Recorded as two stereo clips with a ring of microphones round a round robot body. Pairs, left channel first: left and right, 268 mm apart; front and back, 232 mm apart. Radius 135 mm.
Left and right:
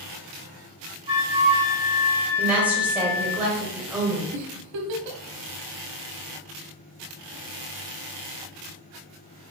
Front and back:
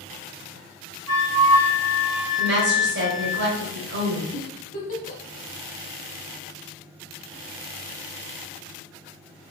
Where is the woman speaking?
175° right, 1.6 m.